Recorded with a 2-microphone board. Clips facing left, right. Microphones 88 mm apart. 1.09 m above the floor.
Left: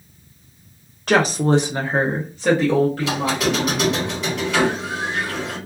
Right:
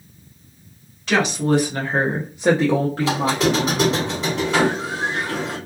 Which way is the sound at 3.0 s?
35° right (ahead or behind).